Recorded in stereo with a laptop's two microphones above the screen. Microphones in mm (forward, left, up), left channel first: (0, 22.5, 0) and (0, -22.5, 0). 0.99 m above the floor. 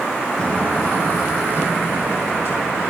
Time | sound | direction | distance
0.4 | footsteps | 20° left (ahead or behind) | 1.0 m